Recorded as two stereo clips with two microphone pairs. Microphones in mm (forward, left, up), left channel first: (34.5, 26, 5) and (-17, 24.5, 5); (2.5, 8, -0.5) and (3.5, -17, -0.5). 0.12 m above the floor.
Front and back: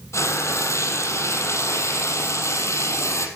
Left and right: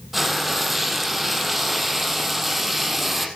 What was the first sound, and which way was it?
Frying, 5° right.